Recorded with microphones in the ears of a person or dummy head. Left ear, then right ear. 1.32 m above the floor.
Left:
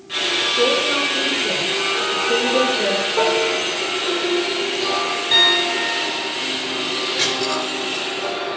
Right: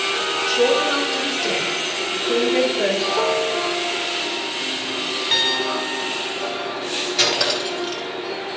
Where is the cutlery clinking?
35° right (ahead or behind), 6 m.